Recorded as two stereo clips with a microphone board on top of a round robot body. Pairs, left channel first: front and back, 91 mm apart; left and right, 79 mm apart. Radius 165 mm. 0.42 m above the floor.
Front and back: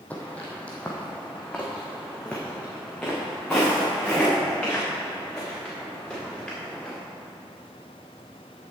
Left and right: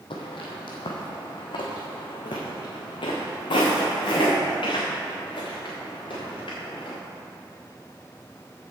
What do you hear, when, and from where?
0.1 s footsteps: 75° left, 1.1 m; by 7.0 s 80° left, 4.5 m